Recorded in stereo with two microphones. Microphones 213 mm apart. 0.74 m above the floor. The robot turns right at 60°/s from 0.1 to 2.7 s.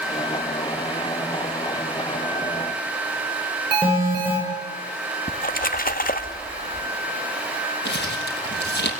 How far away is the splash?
About 1.5 m.